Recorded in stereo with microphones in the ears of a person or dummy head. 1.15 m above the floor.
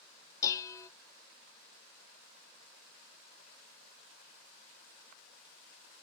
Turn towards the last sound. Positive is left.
turn(degrees=20)  # may be behind; listen again after turning